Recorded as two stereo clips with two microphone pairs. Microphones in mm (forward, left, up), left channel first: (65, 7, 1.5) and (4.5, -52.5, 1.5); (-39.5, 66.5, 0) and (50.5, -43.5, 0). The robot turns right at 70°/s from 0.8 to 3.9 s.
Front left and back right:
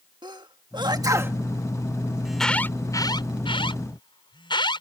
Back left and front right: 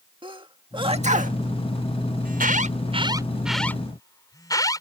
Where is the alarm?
50° right; by 4.8 s 65° left.